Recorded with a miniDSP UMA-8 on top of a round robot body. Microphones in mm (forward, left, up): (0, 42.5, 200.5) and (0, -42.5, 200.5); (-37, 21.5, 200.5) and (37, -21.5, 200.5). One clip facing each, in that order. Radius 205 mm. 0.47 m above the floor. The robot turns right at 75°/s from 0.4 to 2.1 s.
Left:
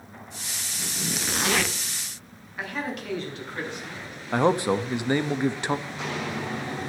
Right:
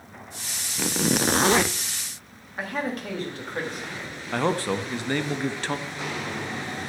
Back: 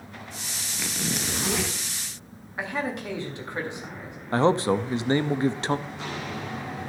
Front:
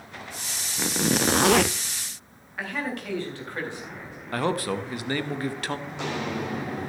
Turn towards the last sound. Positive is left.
turn(degrees=15)